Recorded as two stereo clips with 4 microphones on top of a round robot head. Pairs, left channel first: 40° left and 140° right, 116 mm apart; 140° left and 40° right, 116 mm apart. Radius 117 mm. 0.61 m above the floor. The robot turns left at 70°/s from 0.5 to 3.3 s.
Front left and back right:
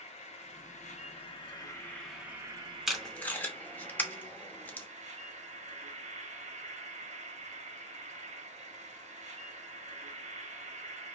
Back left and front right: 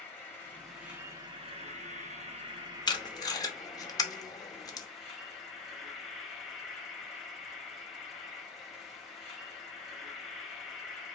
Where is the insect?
65° left, 1.3 m; by 11.2 s 135° right, 1.3 m.